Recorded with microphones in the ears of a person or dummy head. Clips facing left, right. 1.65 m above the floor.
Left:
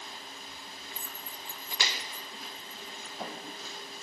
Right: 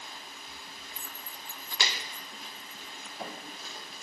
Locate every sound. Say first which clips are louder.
0.9 s keys jangling: left 2 dB; 25° left (ahead or behind); by 3.1 s 5° right (ahead or behind)